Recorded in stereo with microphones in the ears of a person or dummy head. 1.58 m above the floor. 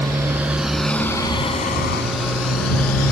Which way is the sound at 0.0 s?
15° right (ahead or behind).